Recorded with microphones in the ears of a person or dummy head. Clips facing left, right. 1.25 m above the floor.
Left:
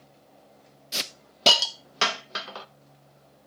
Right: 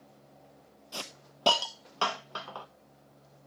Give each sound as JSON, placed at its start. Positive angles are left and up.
{"t": 0.9, "sound": "a hiss", "side_deg": 30, "distance_m": 0.7}